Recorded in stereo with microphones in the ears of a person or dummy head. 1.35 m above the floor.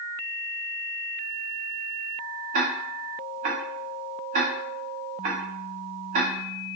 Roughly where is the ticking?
Right.